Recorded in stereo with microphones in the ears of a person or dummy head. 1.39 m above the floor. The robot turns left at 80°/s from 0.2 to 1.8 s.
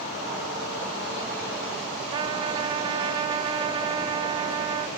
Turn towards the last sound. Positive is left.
turn(degrees=-25)  # may be behind; listen again after turning